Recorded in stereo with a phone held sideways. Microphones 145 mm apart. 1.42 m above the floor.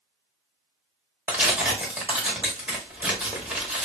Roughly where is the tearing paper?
Centre.